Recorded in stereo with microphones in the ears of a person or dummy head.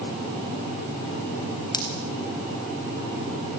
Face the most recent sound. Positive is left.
turn(degrees=20)  # may be behind; listen again after turning